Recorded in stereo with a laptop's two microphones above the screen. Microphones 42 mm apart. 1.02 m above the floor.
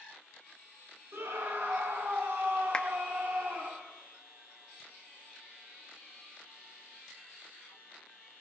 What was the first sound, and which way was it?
A scream, 80° right.